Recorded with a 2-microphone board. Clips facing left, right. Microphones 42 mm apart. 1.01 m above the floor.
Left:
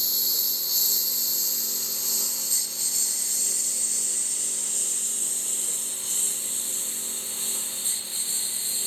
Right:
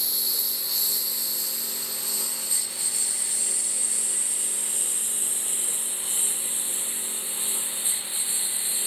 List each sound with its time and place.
0.0 s a lawn mower: 10° right (ahead or behind); by 8.9 s 20° right (ahead or behind)